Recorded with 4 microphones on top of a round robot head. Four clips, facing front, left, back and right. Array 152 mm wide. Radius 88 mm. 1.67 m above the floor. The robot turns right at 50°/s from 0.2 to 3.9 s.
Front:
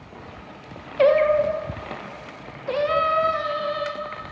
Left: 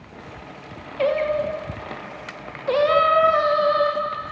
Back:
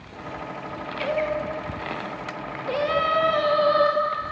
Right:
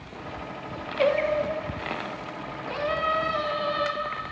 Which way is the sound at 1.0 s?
Straight ahead.